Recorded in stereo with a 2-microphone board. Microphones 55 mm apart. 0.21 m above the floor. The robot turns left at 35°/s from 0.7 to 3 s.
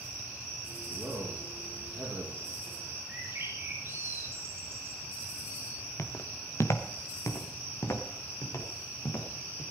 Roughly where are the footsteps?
Left.